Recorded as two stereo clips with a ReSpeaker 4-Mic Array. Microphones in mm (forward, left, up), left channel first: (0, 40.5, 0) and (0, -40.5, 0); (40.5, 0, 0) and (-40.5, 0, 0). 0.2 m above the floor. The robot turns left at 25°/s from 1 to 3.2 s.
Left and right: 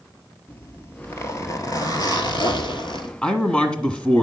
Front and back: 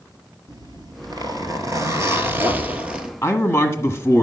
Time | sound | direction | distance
0.5 | a zipper | 150° left | 1.2 m
3.2 | a man speaking | 30° left | 1.3 m